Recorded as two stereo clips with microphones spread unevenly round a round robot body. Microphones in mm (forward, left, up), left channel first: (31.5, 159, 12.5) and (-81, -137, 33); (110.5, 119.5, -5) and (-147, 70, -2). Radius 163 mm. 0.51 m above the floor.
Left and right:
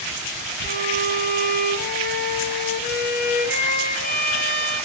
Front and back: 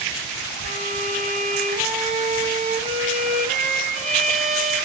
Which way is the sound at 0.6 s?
130° left.